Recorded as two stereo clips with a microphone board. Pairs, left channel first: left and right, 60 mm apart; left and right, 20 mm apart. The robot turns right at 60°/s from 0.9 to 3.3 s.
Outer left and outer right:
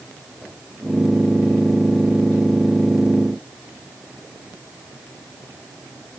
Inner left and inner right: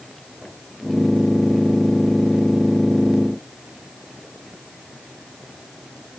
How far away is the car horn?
I don't hear a car horn.